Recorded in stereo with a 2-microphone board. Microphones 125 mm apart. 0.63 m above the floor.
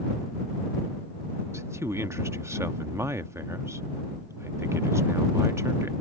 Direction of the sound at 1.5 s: 20° right (ahead or behind).